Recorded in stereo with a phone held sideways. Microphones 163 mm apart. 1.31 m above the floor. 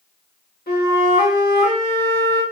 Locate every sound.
0.7 s a flute: 75° left (ahead or behind), 2.5 m